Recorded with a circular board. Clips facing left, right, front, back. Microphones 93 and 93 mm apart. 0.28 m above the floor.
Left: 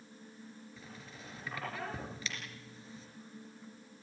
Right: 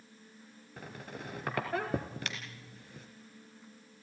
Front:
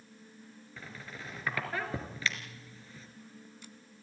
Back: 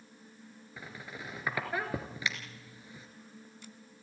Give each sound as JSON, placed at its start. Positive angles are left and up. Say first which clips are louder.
{"t": 0.8, "sound": "a squeak", "louder": "right 6 dB, back 1 dB", "azimuth_deg": -105, "distance_m": 2.0}